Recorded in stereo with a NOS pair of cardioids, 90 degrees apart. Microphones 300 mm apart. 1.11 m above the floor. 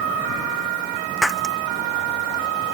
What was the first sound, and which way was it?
Breaking glass, straight ahead.